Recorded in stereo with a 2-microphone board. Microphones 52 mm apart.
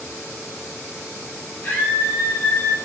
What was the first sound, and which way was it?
A scream, 65° left (ahead or behind).